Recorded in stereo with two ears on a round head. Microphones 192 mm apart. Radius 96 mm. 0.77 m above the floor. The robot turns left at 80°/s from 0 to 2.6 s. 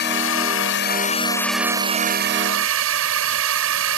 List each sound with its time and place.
0.0 s a drone: 125° left; by 4.0 s 85° right